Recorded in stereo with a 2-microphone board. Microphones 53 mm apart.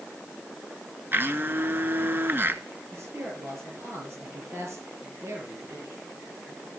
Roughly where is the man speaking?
Right.